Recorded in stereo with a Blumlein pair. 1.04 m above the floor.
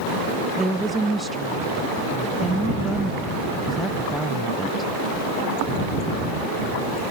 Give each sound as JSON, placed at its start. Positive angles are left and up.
{"t": 0.6, "sound": "a woman speaking", "azimuth_deg": -5}